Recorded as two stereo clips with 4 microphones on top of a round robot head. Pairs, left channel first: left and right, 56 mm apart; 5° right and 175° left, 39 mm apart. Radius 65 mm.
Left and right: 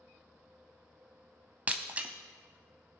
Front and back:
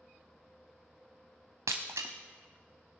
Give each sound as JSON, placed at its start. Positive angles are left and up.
{"t": 1.7, "sound": "breaking glass", "azimuth_deg": -150, "distance_m": 0.6}